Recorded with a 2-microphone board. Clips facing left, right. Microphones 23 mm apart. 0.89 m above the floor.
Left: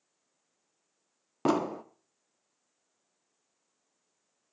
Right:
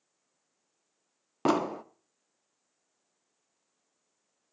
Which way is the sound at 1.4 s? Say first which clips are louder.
Right 1 dB; 15° right (ahead or behind).